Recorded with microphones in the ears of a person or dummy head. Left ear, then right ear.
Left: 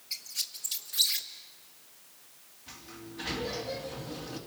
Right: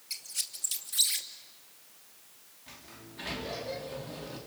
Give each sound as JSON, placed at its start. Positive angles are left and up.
{"t": 0.1, "sound": "a squeak", "side_deg": -15, "distance_m": 1.0}
{"t": 2.7, "sound": "a sliding door", "side_deg": -15, "distance_m": 3.0}